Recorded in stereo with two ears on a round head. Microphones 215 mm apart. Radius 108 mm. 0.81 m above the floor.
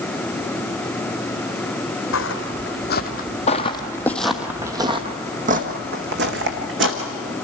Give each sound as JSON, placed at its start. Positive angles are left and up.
{"t": 2.1, "sound": "footsteps", "side_deg": 55, "distance_m": 1.6}